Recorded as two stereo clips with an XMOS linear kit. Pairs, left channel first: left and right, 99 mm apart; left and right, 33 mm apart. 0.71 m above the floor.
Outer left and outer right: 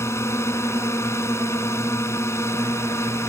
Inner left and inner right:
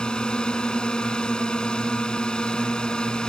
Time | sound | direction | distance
0.0 | a drone | 25° left (ahead or behind) | ?